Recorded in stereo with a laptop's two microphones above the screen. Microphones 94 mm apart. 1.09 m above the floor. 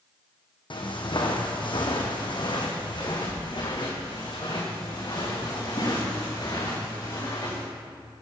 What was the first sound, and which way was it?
Footsteps, 60° left (ahead or behind).